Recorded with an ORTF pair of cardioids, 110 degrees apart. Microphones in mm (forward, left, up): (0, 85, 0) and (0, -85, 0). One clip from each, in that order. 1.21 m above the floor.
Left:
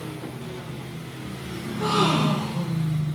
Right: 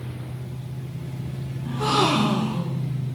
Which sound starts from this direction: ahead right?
A gasp, at 1.6 s.